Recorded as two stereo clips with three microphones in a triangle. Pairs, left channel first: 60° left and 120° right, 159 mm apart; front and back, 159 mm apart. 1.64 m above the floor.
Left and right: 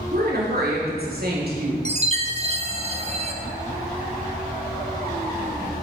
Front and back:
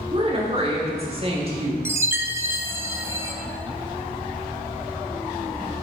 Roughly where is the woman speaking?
Behind right.